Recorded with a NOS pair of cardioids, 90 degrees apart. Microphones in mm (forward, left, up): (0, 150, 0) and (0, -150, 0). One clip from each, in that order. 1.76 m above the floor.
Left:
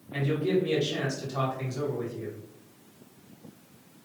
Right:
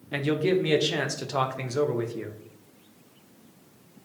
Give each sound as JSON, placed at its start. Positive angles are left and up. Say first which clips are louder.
{"t": 0.1, "sound": "a man speaking", "louder": "right 3 dB", "azimuth_deg": -65, "distance_m": 0.8}